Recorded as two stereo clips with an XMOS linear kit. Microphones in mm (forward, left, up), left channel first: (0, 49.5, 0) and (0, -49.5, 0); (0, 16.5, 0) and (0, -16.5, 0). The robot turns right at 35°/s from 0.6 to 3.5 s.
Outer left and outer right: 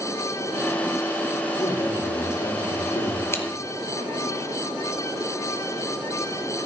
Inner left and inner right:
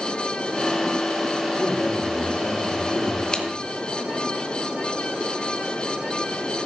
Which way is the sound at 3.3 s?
25° left (ahead or behind).